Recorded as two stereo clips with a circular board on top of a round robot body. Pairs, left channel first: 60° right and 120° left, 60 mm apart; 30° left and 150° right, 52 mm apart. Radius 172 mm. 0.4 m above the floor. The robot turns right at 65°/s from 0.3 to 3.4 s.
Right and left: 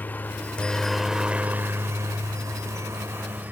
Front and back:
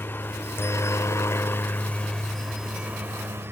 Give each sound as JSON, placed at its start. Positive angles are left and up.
{"t": 0.0, "sound": "a helicopter", "azimuth_deg": -5}